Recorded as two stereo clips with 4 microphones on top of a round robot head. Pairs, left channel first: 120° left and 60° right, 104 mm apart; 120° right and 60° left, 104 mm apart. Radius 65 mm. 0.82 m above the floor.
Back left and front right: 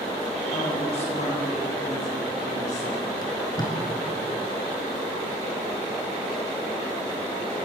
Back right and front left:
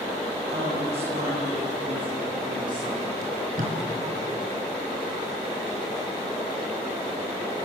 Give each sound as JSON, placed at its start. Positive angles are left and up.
{"t": 0.5, "sound": "a woman speaking", "azimuth_deg": 85, "distance_m": 6.0}
{"t": 3.2, "sound": "tape being pulled", "azimuth_deg": 65, "distance_m": 4.0}